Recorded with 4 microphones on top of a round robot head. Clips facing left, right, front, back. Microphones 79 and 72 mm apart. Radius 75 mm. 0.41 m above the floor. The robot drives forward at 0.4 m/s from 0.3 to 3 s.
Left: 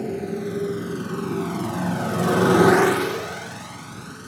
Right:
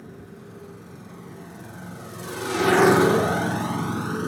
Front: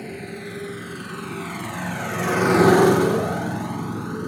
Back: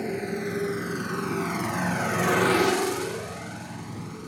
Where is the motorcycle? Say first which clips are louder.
Left 16 dB, back 4 dB; 110° left; by 4.3 s 50° right.